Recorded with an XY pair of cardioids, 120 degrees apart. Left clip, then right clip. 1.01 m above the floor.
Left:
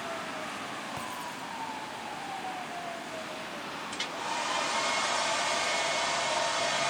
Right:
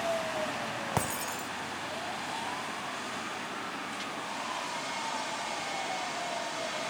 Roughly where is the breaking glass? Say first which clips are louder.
Right 4 dB; ahead right.